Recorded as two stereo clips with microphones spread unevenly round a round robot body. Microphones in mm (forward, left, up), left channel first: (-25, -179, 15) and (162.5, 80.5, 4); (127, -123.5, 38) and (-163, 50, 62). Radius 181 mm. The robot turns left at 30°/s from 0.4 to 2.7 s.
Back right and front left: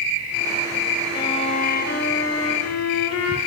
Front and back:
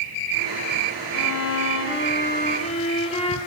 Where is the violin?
50° right, 0.9 m; by 3.4 s 95° right, 0.9 m.